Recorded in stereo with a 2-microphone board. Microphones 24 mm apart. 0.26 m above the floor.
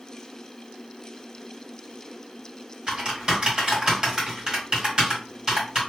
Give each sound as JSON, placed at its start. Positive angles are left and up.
{"t": 2.9, "sound": "typing on a keyboard", "side_deg": -30, "distance_m": 1.7}